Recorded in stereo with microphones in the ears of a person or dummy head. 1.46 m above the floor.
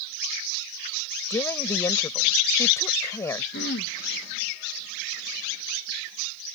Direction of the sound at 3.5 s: 50° left (ahead or behind).